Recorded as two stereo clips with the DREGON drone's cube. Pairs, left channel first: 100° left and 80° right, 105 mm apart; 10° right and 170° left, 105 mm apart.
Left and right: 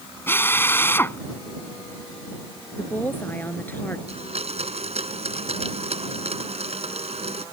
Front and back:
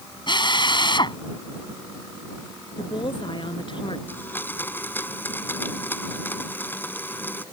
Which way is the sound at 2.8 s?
25° left.